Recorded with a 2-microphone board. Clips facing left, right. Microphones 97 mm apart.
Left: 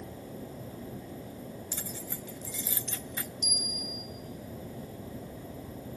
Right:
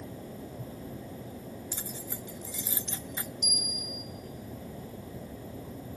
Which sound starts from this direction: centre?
Keys jangling, at 1.7 s.